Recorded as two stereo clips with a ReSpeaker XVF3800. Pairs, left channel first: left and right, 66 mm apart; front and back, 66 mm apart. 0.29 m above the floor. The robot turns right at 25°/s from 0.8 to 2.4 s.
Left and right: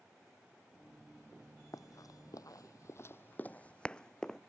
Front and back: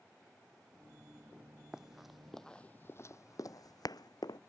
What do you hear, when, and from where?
1.7 s running footsteps: 100° left; by 4.4 s 10° left